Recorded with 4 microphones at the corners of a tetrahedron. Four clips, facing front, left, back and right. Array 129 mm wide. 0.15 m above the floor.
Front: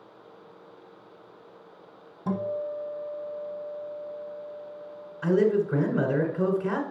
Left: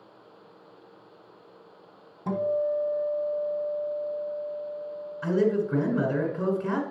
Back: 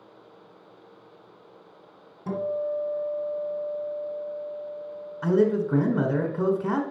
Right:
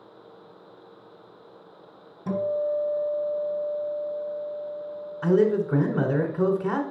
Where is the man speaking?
130° right, 1.1 m.